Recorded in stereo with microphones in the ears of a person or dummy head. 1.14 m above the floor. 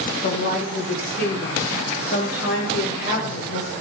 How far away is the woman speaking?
About 2 m.